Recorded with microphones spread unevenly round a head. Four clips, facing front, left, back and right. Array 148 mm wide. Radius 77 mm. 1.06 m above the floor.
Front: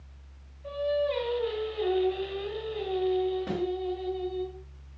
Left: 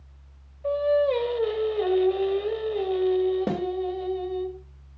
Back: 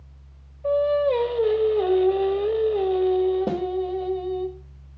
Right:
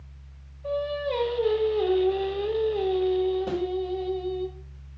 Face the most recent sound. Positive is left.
turn(degrees=140)